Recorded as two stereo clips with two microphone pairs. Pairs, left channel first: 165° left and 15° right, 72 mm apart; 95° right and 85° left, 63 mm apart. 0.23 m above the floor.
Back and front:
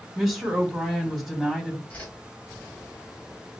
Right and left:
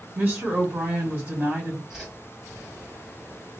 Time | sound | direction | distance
0.1 | a woman speaking | 70° left | 1.6 m
1.9 | a whoosh | 145° left | 1.5 m